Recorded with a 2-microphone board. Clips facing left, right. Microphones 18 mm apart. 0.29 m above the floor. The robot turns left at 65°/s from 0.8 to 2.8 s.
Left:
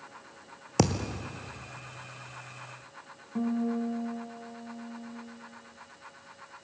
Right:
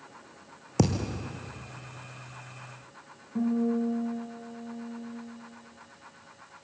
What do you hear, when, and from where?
0.8 s a thud: 25° left, 1.6 m; by 1.3 s 5° right, 1.6 m
3.4 s a guitar: 25° left (ahead or behind), 3 m